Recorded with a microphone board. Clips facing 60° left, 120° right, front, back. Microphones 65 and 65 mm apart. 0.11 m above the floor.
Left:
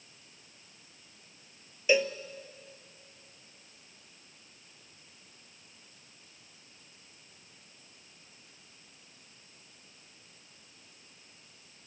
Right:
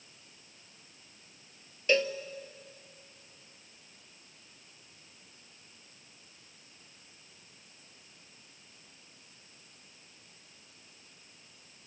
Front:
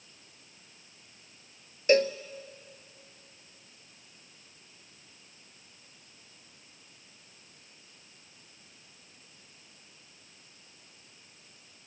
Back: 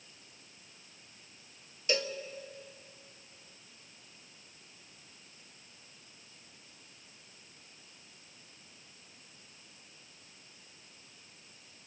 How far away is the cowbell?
About 0.7 m.